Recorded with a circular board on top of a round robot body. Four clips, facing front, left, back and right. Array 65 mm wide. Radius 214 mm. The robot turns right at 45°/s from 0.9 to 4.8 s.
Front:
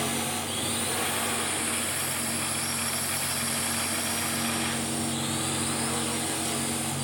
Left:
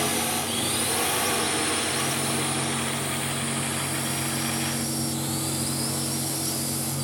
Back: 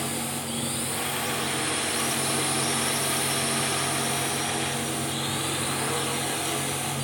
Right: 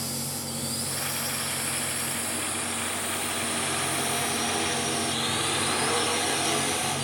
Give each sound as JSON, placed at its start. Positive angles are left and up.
{"t": 0.0, "sound": "a drone", "azimuth_deg": 80}